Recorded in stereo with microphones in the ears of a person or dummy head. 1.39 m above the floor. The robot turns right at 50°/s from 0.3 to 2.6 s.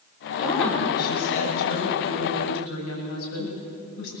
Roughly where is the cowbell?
I don't hear a cowbell.